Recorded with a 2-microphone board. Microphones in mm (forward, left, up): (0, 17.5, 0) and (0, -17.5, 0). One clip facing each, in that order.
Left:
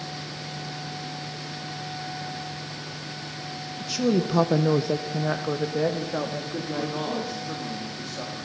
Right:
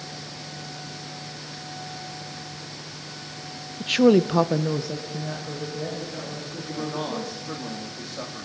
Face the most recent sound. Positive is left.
turn(degrees=-10)  # may be behind; listen again after turning